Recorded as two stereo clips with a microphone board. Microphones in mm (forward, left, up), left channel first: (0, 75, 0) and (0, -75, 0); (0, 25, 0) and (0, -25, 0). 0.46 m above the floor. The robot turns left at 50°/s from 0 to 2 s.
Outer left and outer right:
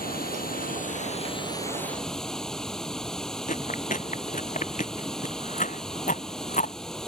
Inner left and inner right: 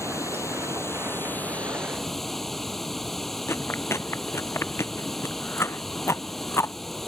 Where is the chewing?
60° left (ahead or behind).